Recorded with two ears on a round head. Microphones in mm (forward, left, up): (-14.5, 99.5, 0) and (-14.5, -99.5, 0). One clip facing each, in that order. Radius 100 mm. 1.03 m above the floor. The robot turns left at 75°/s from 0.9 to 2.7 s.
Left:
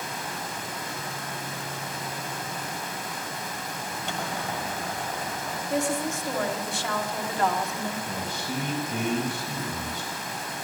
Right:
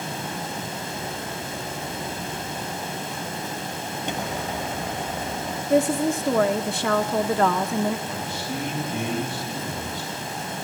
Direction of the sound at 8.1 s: 75° left (ahead or behind).